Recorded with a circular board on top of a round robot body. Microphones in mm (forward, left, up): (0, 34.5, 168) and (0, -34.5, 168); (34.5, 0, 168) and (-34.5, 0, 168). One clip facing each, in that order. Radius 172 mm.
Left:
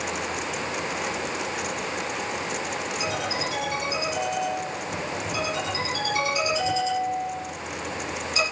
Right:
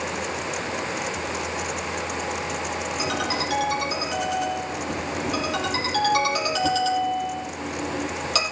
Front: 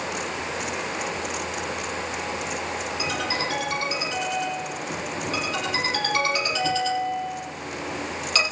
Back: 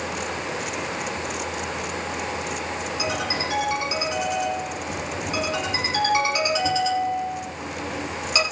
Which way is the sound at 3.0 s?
100° right.